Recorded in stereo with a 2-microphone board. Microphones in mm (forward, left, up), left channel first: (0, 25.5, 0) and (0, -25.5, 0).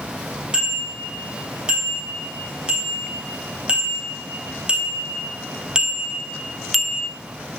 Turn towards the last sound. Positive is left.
turn(degrees=5)  # may be behind; listen again after turning